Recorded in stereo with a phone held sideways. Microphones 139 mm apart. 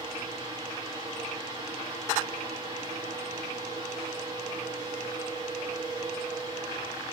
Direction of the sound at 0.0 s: 25° right (ahead or behind).